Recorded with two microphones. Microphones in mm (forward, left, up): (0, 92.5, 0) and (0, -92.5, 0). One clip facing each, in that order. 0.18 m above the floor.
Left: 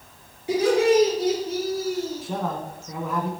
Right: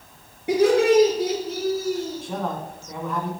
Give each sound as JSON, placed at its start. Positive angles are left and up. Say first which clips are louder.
{"t": 0.5, "sound": "laughter", "louder": "right 2 dB", "side_deg": -60, "distance_m": 3.5}
{"t": 2.2, "sound": "a man speaking", "louder": "even", "side_deg": 0, "distance_m": 1.2}